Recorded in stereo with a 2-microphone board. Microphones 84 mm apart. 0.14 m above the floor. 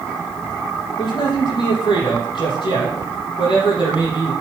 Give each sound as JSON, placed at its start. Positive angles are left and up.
{"t": 1.0, "sound": "a man speaking", "side_deg": 70, "distance_m": 5.5}